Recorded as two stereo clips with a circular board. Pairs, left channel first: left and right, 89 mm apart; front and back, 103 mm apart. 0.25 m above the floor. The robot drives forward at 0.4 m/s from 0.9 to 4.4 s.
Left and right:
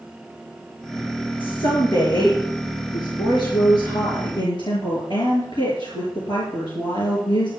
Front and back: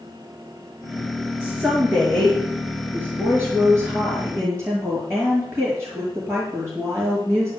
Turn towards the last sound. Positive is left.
turn(degrees=115)